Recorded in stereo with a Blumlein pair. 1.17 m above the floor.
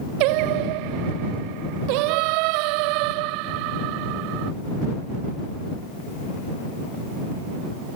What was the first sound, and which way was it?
Singing, 45° right.